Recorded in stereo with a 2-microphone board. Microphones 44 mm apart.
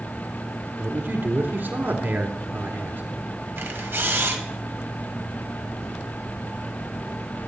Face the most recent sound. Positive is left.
turn(degrees=-60)  # may be behind; listen again after turning